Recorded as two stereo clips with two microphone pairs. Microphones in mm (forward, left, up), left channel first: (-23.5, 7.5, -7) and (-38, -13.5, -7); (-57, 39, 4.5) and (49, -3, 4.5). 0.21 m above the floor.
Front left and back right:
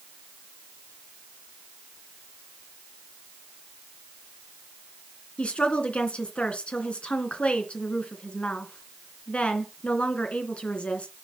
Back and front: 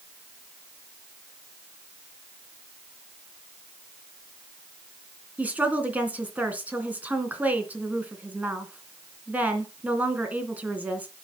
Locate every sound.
5.4 s a woman speaking: 50° left, 2.5 m